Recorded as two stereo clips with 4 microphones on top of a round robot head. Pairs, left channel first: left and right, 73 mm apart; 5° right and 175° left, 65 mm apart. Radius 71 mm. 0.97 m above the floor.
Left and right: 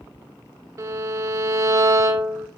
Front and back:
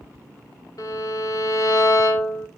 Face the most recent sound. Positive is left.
turn(degrees=-40)